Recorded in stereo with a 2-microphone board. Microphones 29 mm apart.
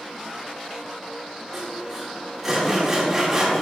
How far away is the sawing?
About 3.5 m.